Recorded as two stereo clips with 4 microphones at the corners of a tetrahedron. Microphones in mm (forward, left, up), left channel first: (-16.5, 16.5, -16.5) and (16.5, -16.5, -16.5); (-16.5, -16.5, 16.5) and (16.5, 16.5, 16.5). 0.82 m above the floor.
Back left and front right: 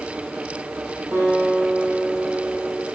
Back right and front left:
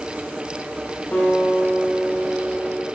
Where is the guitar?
90° right, 3 m.